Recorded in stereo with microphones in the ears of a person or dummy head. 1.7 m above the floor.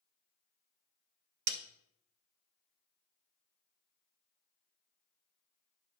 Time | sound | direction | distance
1.5 | a snare drum | 55° right (ahead or behind) | 0.6 m